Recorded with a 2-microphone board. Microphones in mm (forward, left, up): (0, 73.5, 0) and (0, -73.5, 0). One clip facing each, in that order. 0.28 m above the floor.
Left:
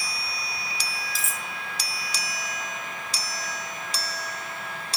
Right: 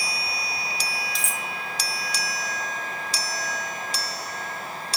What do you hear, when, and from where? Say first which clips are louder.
1.1 s cutlery clinking: right 3 dB; 5° left (ahead or behind), 0.9 m